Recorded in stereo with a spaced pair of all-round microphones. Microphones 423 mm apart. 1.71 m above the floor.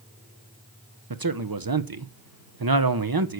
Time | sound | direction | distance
1.1 | a man speaking | 55° right (ahead or behind) | 0.9 m